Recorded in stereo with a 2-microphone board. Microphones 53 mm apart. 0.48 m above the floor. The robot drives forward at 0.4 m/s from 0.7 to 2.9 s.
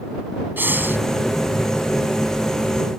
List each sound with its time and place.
0.6 s breathing: 40° right (ahead or behind); by 1.0 s 45° right (ahead or behind)